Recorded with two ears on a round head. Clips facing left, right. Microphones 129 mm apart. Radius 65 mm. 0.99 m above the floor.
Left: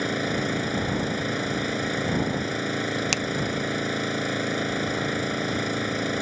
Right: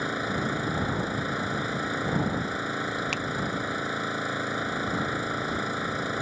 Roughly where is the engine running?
Left.